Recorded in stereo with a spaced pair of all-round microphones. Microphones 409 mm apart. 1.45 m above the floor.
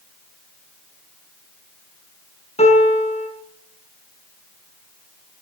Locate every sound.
2.6 s a piano: 15° left (ahead or behind), 5 m